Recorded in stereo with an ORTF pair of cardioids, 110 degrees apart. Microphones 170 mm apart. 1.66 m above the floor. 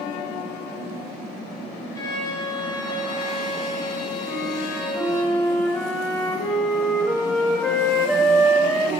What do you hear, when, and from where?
1.9 s a violin: 20° left, 1.0 m
4.2 s a flute: straight ahead, 1.0 m